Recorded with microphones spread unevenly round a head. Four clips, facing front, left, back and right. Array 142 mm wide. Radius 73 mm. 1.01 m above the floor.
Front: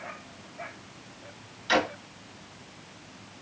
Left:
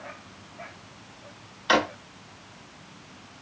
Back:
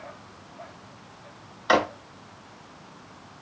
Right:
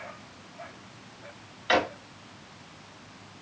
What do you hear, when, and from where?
1.7 s a drawer: 160° left, 1.8 m